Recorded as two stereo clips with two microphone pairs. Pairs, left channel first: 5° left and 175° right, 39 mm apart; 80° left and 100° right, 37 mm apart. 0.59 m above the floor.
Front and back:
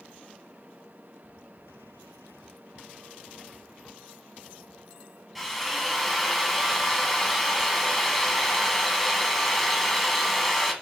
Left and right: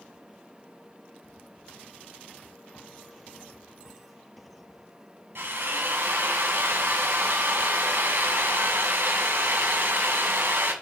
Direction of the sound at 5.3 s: 85° right.